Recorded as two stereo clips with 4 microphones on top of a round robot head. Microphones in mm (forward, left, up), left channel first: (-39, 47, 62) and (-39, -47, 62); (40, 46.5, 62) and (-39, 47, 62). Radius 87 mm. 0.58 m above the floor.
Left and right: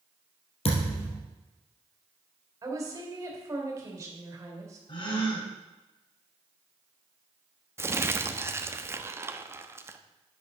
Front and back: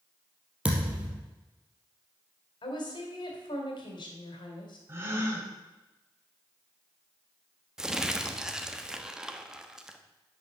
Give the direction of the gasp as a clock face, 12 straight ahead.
8 o'clock.